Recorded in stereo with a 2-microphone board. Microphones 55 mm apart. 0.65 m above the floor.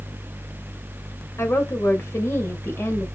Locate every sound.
1.4 s a woman speaking: 50° left (ahead or behind), 2.5 m